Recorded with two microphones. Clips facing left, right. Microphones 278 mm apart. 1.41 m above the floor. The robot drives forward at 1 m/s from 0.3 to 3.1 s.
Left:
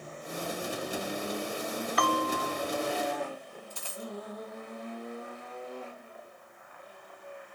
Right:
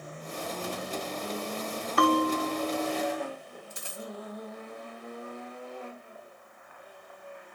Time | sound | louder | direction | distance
2.0 | a bell | right 8 dB | 55° right (ahead or behind) | 1.0 m
3.7 | a dropped coin | even | 25° right (ahead or behind) | 1.8 m